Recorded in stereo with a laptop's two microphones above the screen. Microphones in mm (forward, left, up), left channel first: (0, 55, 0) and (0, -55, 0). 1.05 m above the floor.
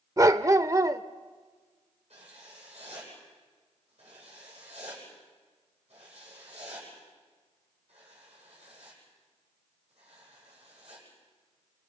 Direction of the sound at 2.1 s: 65° right (ahead or behind).